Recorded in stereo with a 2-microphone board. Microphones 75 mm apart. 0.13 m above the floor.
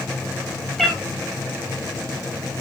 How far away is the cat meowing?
About 1.6 m.